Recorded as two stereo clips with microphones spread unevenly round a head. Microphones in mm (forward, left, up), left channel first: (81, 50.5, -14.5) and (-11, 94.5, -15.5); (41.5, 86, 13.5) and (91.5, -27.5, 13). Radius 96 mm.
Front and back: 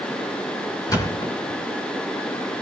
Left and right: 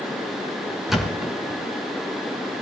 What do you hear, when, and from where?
0.9 s a thud: 20° left, 3 m